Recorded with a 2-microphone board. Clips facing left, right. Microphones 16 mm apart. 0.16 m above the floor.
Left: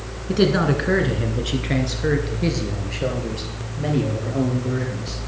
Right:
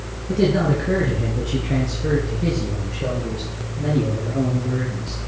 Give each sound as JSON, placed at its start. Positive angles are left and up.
{"t": 0.3, "sound": "a man speaking", "side_deg": 40, "distance_m": 1.4}